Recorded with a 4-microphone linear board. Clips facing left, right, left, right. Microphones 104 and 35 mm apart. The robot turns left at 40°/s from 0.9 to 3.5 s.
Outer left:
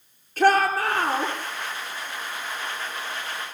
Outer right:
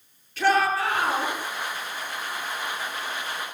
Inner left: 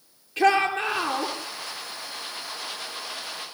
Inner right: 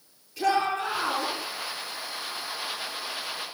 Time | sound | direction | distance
0.4 | a shout | 45° left (ahead or behind) | 8 m